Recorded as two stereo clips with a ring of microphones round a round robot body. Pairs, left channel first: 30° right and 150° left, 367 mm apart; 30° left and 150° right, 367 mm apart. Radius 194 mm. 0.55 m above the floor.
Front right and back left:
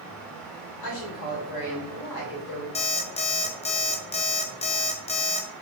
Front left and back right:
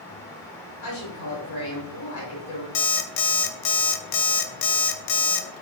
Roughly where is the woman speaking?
Ahead.